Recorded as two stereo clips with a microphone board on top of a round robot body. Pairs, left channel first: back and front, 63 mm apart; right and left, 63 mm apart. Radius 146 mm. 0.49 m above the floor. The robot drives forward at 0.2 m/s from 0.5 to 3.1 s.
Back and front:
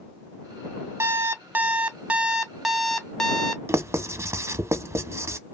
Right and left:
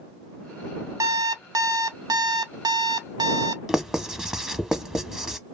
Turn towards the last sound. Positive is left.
turn(degrees=15)